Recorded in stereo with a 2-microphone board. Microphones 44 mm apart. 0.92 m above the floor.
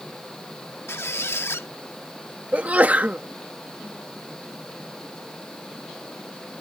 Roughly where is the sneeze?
Right.